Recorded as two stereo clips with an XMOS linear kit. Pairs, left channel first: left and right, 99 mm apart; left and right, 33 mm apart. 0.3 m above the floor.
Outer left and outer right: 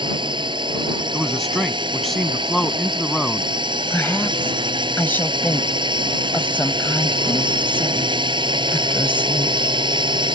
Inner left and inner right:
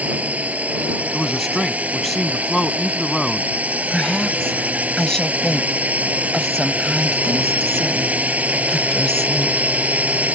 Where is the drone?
55° right (ahead or behind).